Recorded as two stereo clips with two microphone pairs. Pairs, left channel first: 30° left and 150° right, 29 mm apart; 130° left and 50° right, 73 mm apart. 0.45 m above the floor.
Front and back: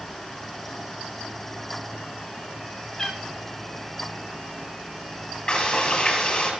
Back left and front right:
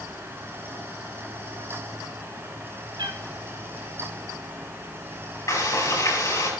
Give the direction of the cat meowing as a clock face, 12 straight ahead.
1 o'clock.